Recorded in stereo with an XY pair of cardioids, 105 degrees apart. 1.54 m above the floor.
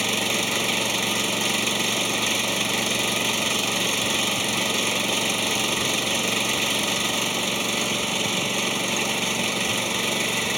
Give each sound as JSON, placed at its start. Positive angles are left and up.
{"t": 0.0, "sound": "an engine running", "azimuth_deg": -5}